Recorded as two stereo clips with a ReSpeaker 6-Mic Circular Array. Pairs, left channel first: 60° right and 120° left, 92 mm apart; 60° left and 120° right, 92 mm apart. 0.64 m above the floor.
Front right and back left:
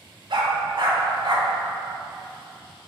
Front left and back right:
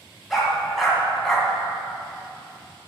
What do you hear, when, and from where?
0.3 s a dog barking: 150° left, 1.9 m